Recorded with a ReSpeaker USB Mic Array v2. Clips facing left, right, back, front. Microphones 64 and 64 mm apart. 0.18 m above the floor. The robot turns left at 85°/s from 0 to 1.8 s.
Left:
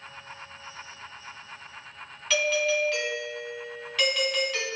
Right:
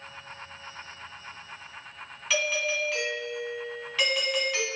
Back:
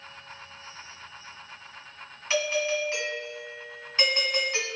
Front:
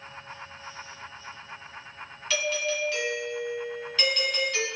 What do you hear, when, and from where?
2.3 s a doorbell: 175° left, 1.6 m